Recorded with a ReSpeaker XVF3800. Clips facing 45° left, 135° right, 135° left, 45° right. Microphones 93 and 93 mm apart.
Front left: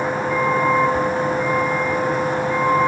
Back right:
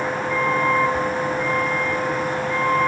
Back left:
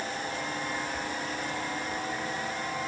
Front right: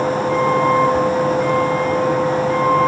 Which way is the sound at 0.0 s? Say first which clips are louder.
Front left 2 dB, front right 17 dB; 35° right.